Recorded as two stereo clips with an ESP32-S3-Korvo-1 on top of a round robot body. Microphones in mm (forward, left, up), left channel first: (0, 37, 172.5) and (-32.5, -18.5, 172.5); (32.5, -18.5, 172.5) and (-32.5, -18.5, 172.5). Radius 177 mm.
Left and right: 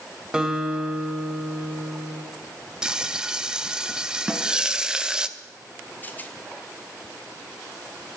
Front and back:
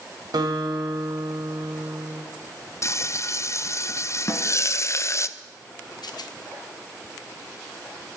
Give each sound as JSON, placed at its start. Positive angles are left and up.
{"t": 0.3, "sound": "a guitar", "azimuth_deg": 160, "distance_m": 1.6}
{"t": 2.8, "sound": "frying", "azimuth_deg": -45, "distance_m": 0.7}
{"t": 4.3, "sound": "a snare drum", "azimuth_deg": -50, "distance_m": 1.6}
{"t": 6.0, "sound": "a rattle", "azimuth_deg": -5, "distance_m": 0.9}